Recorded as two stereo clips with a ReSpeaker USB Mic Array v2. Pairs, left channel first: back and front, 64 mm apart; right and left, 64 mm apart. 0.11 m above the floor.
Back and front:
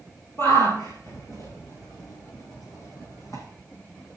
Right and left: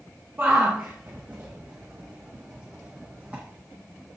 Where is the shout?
140° left, 3 m; by 3.4 s 155° left, 5 m.